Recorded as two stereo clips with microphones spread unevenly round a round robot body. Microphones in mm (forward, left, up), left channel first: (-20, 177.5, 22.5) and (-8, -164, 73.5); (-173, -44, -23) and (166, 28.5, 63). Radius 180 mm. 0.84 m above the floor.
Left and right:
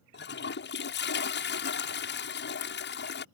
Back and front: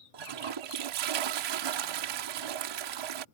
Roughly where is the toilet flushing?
Ahead left.